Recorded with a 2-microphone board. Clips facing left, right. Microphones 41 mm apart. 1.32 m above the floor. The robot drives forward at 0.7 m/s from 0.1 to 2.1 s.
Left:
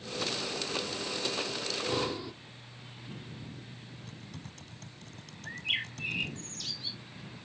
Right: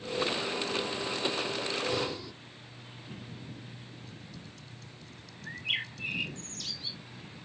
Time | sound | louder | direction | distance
1.6 | breathing | left 1 dB | 15° left (ahead or behind) | ?
4.1 | typing on a keyboard | left 1 dB | 55° left (ahead or behind) | ?
5.5 | a bird | even | centre (ahead or behind) | ?